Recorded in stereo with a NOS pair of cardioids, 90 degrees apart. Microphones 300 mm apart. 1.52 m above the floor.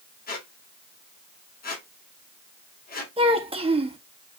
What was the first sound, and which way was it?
A squeak, 30° left.